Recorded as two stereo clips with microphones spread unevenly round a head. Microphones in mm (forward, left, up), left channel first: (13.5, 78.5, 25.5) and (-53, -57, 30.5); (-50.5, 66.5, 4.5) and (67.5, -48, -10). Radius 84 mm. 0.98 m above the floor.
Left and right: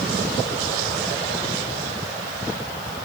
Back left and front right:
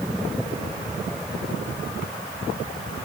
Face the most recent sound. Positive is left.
No sound to turn to.